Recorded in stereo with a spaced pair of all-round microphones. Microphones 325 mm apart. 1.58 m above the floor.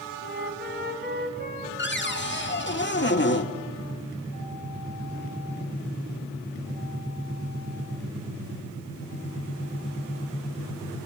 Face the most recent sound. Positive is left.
turn(degrees=35)  # may be behind; listen again after turning